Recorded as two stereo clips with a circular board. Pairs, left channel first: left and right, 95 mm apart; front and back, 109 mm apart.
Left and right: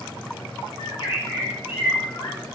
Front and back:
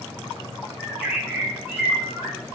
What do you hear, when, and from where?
0.8 s a bird: 105° left, 3.5 m